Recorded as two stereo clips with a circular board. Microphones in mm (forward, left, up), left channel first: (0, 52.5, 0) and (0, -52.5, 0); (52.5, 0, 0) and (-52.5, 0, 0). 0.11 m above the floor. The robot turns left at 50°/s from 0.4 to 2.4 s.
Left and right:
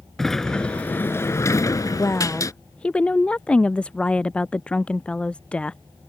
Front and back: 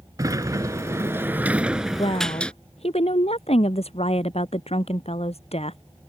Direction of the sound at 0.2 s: 170° left.